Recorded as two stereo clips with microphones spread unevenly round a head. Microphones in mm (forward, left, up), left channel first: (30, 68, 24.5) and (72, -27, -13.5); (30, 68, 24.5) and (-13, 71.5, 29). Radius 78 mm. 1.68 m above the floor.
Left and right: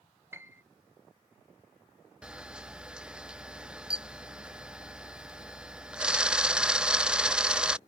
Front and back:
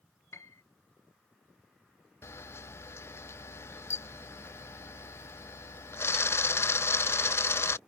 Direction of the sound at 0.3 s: Straight ahead.